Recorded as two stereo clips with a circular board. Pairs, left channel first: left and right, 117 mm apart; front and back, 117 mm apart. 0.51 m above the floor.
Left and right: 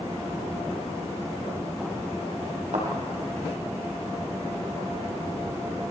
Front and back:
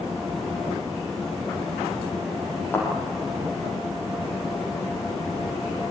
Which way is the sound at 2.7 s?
70° right.